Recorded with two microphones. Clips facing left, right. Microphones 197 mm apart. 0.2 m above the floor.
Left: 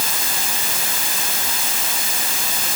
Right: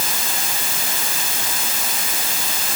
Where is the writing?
No writing in this recording.